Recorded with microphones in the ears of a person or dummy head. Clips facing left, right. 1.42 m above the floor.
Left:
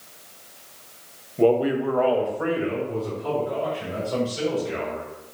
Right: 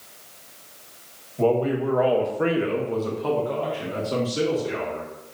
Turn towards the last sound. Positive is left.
turn(degrees=-85)